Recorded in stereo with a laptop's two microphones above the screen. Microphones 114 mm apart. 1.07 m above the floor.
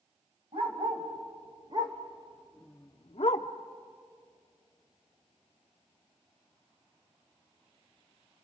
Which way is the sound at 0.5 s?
55° right (ahead or behind).